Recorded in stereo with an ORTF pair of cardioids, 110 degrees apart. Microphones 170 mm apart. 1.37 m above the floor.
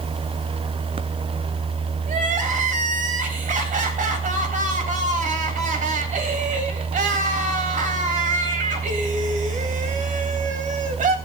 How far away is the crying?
About 3.5 m.